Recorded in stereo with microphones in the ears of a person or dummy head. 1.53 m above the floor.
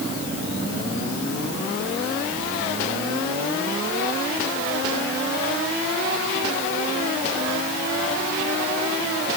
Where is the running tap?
I don't hear a running tap.